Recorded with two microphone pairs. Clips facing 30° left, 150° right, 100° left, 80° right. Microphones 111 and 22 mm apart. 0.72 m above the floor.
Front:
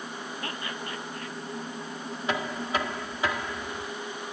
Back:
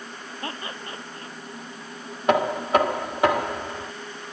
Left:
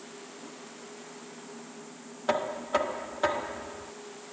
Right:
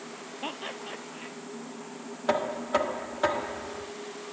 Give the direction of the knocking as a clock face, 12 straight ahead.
6 o'clock.